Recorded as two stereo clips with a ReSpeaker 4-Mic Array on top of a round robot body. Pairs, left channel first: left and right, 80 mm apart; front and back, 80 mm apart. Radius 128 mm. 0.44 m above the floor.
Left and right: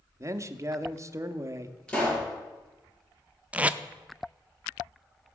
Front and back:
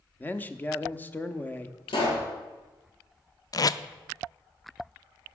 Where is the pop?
15° left, 4 m.